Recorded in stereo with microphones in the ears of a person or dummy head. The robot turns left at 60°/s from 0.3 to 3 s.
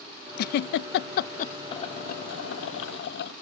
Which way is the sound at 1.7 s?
150° left.